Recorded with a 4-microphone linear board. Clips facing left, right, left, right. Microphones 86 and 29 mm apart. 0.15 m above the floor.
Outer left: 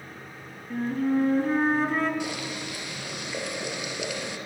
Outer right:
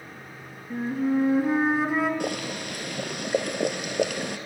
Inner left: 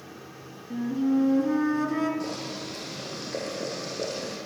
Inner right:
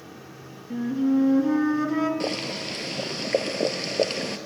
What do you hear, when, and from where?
0.7 s a flute: 10° right (ahead or behind), 2 m
2.2 s boiling: 55° right (ahead or behind), 2 m